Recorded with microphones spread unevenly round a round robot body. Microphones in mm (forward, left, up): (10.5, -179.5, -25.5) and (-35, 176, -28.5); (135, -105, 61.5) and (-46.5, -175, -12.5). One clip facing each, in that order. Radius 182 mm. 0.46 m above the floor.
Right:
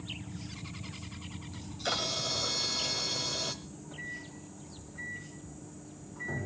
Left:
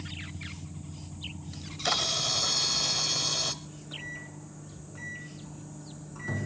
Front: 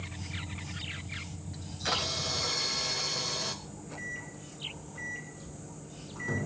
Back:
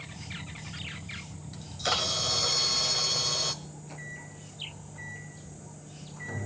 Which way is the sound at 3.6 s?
70° left.